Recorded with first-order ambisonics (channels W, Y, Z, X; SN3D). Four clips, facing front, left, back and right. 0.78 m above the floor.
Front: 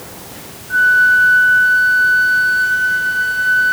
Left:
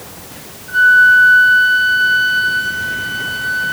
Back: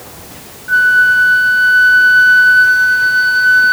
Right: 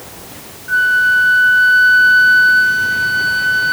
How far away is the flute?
About 3 m.